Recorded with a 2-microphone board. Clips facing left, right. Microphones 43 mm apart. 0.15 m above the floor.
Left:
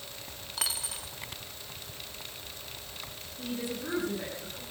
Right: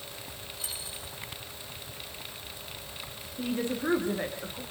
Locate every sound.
0.6 s a dropped coin: 85° left, 2.5 m
3.4 s a woman speaking: 40° right (ahead or behind), 8.5 m